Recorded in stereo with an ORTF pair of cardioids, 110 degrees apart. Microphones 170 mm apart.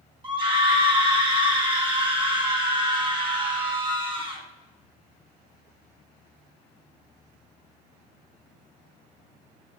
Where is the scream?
30° right, 1.7 m.